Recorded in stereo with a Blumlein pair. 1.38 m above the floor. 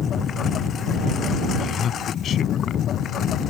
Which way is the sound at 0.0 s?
25° left.